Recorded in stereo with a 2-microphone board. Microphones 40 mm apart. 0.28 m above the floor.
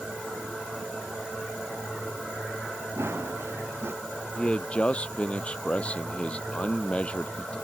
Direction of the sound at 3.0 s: 80° right.